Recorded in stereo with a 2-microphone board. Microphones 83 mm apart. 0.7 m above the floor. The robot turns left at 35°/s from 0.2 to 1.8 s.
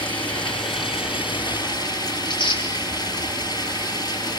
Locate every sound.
0.0 s running water: 110° left, 6.5 m; by 4.4 s 55° left, 6.5 m
2.2 s tearing paper: 85° left, 9 m